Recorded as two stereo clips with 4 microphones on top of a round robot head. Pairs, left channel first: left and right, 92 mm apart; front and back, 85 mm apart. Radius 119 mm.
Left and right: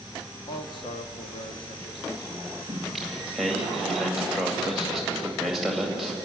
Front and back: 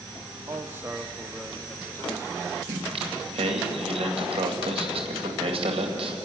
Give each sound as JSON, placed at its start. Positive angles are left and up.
{"t": 0.5, "sound": "a man speaking", "azimuth_deg": 130, "distance_m": 1.7}
{"t": 2.7, "sound": "singing", "azimuth_deg": 180, "distance_m": 2.0}